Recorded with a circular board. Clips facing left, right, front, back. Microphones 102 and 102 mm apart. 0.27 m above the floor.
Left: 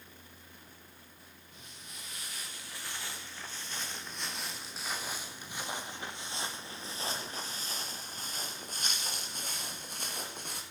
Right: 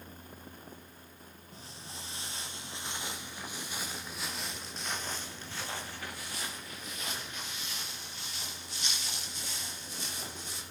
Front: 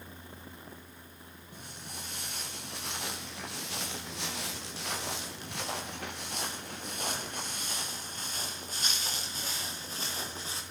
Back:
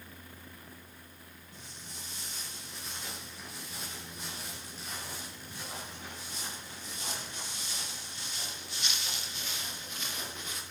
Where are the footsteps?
35° right, 4 m; by 10.6 s 55° left, 5.5 m.